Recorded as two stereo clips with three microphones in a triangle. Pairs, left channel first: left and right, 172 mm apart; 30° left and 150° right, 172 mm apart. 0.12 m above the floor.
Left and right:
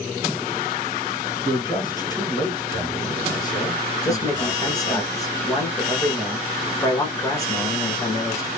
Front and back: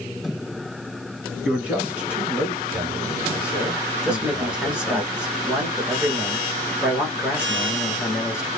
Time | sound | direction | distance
1.4 | a man speaking | 135° left | 1.5 m
4.0 | a man speaking | 130° left | 1.1 m